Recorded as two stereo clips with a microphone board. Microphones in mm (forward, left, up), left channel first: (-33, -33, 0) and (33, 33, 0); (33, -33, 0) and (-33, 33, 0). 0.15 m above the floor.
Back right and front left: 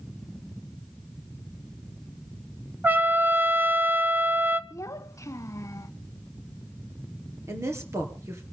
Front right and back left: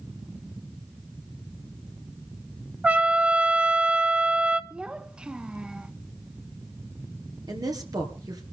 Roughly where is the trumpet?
Left.